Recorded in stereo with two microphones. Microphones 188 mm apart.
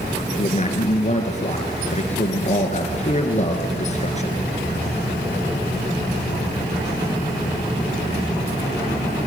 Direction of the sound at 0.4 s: 40° left (ahead or behind).